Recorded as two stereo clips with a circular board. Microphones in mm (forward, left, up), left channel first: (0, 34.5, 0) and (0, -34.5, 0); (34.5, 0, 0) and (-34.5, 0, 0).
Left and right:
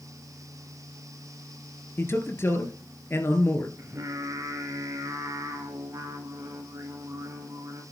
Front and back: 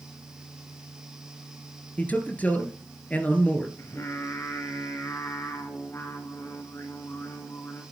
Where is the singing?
45° right, 5.5 m.